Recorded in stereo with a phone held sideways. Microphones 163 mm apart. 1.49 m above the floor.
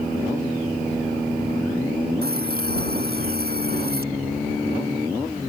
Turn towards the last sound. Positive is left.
turn(degrees=-75)  # may be behind; listen again after turning